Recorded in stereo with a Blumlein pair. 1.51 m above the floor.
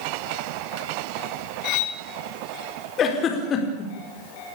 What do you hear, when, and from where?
1.6 s cutlery clinking: 40° left, 1.9 m
3.0 s a giggle: 25° left, 4.5 m